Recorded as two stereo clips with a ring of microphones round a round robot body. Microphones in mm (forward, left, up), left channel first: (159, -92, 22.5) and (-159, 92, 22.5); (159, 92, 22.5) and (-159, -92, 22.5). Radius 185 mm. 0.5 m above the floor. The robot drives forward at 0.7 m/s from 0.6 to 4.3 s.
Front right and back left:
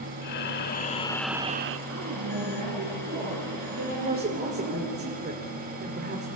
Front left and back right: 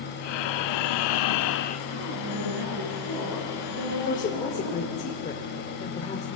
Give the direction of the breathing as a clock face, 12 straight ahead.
11 o'clock.